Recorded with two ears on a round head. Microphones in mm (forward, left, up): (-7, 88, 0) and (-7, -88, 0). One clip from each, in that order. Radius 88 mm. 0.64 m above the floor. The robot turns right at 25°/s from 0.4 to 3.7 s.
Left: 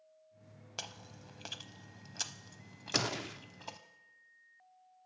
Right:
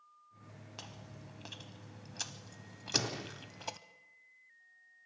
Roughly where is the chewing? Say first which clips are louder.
Left 6 dB; left.